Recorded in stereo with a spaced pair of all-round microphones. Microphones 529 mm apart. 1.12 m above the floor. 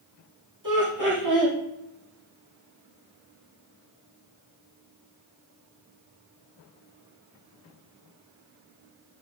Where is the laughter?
35° right (ahead or behind), 3 m.